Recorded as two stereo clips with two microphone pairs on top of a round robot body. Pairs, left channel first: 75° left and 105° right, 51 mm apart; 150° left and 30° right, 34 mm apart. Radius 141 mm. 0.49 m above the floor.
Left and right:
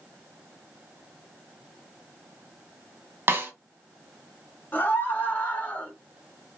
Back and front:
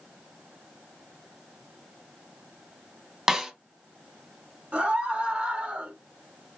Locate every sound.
3.3 s a snare drum: 110° right, 1.3 m
4.7 s a scream: 20° left, 2.5 m